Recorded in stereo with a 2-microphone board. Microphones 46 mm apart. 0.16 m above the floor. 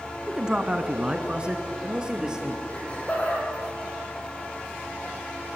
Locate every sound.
0.3 s a man speaking: 15° right (ahead or behind), 1.1 m
2.7 s laughter: 30° left (ahead or behind), 7 m